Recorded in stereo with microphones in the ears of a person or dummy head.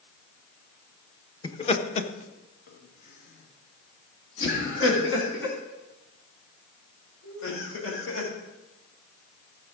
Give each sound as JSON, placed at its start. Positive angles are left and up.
{"t": 1.4, "sound": "laughter", "side_deg": 30, "distance_m": 1.1}